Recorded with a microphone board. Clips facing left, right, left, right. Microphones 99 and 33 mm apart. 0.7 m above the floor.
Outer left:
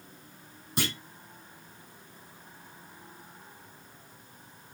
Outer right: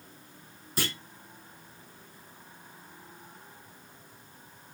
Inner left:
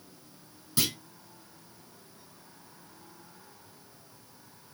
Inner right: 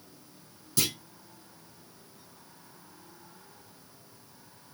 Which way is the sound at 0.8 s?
20° left (ahead or behind).